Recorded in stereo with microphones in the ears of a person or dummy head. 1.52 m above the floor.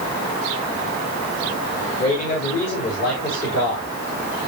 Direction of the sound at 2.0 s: 50° left (ahead or behind).